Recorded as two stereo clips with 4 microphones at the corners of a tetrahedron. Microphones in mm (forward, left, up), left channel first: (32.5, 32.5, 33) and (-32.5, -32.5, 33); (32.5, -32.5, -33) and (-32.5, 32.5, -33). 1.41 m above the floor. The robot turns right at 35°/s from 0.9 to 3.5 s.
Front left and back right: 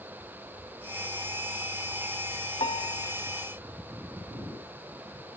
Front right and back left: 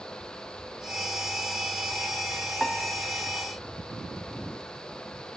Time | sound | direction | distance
2.6 | a piano | 40° left | 1.5 m